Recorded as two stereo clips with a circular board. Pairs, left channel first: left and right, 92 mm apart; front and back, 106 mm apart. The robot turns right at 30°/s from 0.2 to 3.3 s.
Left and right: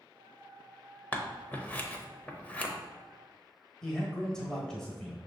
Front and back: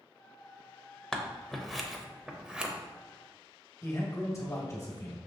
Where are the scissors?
70° left, 0.6 m; by 2.7 s 120° left, 0.6 m.